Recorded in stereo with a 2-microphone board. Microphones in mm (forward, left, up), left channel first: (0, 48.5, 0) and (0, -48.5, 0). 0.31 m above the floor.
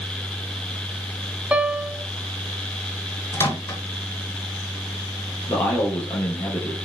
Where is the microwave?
30° left (ahead or behind), 3 m.